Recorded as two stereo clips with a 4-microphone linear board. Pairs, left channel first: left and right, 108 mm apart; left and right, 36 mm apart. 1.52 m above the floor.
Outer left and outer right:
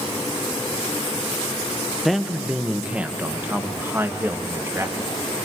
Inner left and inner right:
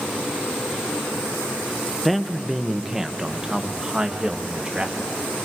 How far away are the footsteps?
I don't hear footsteps.